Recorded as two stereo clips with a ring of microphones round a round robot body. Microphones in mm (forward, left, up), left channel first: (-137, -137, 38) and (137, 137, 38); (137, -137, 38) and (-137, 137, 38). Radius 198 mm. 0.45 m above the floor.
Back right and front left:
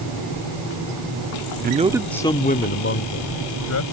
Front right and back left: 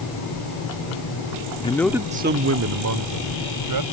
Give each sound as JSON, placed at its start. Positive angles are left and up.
{"t": 1.6, "sound": "a man speaking", "azimuth_deg": 15}